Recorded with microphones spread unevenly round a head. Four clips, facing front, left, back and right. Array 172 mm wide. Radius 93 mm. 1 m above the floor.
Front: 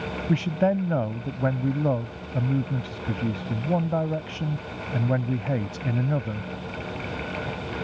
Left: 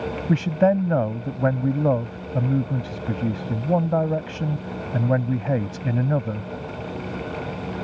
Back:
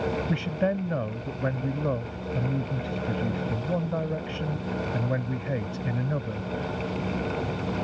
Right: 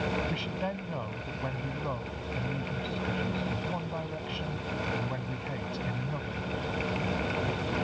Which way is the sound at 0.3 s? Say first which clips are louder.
Left 15 dB, front 9 dB; 75° left.